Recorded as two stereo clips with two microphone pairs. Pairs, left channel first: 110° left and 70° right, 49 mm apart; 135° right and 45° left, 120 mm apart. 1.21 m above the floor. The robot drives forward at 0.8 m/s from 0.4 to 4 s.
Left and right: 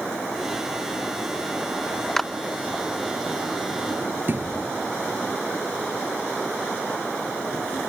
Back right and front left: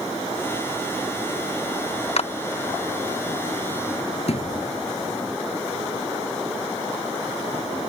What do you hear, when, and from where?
2.2 s a clap: 170° right
4.3 s a thud: 110° right